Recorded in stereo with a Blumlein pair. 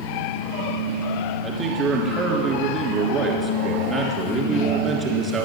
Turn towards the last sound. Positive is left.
turn(degrees=-25)